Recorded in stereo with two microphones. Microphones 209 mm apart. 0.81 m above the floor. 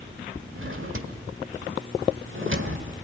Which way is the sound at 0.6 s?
75° right (ahead or behind).